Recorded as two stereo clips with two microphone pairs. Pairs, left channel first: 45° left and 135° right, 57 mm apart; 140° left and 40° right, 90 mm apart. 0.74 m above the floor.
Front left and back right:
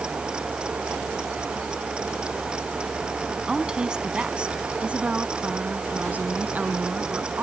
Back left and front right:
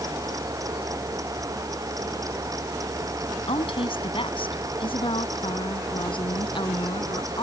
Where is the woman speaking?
150° left; by 7.4 s 165° left.